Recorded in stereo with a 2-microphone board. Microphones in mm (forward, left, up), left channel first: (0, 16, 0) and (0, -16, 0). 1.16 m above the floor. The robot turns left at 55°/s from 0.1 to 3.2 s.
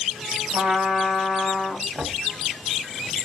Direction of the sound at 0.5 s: 110° right.